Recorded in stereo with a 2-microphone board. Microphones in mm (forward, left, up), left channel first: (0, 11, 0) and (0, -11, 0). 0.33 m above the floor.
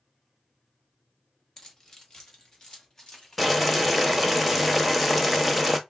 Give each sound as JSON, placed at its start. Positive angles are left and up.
{"t": 1.6, "sound": "keys jangling", "side_deg": 20, "distance_m": 1.1}
{"t": 3.4, "sound": "boiling", "side_deg": 5, "distance_m": 0.8}